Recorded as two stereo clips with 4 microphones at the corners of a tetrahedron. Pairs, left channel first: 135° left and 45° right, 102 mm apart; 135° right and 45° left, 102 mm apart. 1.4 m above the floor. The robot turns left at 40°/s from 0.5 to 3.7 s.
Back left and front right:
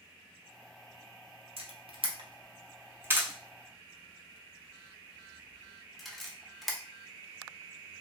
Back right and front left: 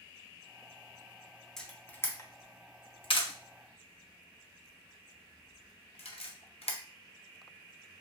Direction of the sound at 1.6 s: 50° right.